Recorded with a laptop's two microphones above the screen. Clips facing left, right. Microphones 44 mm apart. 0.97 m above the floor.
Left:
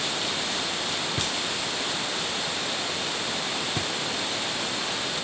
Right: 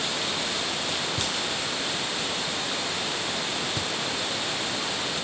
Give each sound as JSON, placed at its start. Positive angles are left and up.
{"t": 1.2, "sound": "knocking", "side_deg": 40}